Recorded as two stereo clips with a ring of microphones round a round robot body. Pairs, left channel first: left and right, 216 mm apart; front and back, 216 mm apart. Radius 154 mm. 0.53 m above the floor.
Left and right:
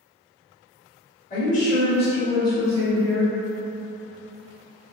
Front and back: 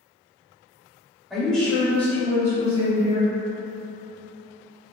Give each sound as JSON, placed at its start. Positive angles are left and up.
{"t": 1.3, "sound": "a woman speaking", "azimuth_deg": 90, "distance_m": 1.4}